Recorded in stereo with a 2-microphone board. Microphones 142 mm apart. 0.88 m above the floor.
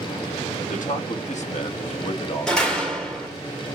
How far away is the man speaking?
About 1.2 m.